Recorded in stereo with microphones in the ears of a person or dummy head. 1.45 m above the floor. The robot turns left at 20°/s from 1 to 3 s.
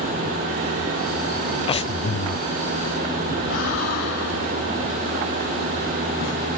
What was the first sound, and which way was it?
Breathing, 35° left (ahead or behind).